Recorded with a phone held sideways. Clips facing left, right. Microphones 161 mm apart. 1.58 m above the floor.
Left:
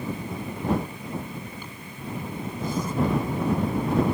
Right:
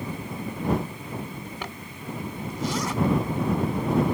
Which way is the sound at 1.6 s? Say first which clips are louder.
Right 2 dB; 85° right.